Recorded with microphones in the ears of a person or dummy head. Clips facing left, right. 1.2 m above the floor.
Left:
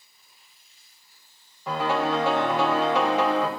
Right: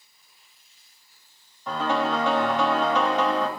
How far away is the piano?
About 1.3 m.